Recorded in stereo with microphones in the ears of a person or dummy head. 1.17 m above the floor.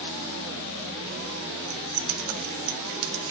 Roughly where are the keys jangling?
Right.